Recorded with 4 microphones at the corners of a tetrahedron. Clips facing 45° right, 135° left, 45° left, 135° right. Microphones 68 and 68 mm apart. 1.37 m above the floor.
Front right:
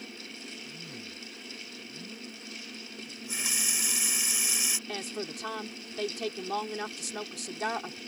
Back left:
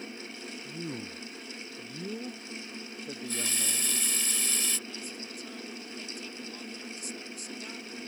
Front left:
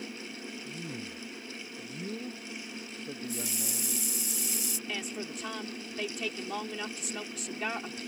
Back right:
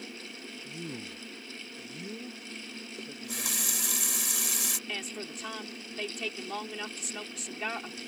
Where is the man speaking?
165° left; by 4.0 s 100° left.